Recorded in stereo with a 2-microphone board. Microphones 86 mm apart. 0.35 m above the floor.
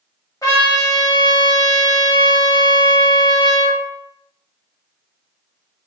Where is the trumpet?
40° left (ahead or behind), 1.2 m.